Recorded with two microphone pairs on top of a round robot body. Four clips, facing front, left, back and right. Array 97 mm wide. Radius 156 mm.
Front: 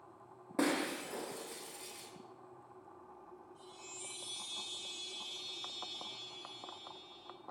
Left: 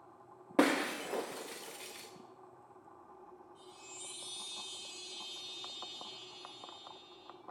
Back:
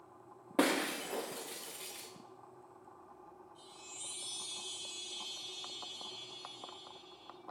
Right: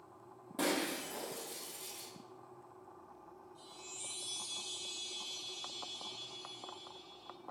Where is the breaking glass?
115° left, 0.8 m.